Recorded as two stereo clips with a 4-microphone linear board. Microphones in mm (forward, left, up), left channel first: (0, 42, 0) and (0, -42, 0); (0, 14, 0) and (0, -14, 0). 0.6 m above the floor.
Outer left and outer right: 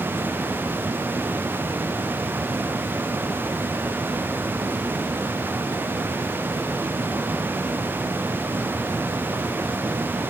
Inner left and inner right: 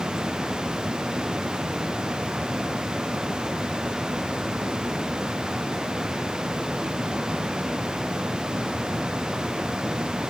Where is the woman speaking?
No woman speaking in this recording.